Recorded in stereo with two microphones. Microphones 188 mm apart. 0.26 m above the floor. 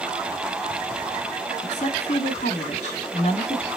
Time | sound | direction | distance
1.6 | a woman speaking | 40° left (ahead or behind) | 2 m